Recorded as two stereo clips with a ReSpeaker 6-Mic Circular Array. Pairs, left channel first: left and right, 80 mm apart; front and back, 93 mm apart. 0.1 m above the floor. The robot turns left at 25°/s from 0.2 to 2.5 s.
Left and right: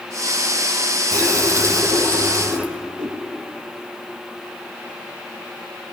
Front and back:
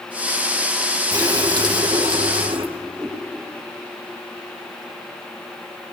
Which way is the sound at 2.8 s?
80° right.